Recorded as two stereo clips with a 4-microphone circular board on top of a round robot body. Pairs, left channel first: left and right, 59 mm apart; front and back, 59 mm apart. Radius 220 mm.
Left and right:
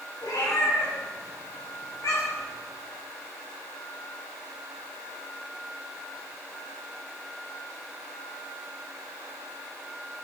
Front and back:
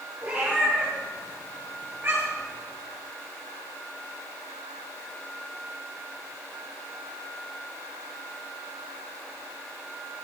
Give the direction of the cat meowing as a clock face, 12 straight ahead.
8 o'clock.